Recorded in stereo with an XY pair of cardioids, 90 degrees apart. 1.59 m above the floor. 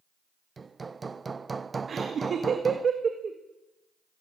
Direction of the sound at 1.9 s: 50° right.